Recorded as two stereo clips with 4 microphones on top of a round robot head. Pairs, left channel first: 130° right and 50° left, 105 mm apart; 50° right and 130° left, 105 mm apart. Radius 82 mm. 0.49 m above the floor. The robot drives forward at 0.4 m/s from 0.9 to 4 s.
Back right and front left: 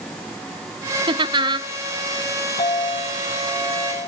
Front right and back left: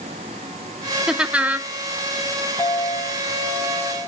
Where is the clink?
125° right, 3.5 m; by 4.1 s 135° right, 4 m.